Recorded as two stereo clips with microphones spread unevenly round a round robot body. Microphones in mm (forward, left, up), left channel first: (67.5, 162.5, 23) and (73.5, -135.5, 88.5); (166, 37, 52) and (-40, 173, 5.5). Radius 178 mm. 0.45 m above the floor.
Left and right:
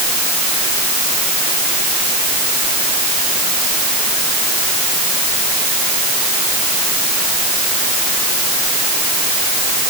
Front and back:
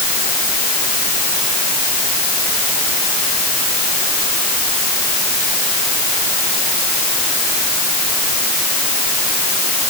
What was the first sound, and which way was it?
Only background noise.